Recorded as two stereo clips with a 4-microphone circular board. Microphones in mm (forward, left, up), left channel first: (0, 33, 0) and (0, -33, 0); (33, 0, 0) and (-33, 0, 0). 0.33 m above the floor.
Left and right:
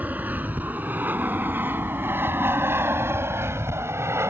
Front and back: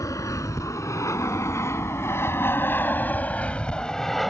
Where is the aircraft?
30° right; by 4.3 s 90° right.